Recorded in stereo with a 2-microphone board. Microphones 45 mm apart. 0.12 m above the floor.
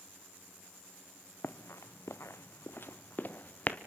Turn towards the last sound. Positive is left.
turn(degrees=35)  # may be behind; listen again after turning